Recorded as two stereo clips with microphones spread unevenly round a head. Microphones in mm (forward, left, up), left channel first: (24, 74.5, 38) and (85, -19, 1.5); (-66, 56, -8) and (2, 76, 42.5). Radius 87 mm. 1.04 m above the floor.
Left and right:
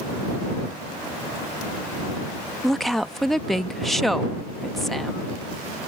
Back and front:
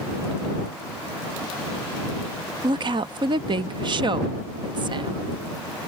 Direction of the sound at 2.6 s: 35° left.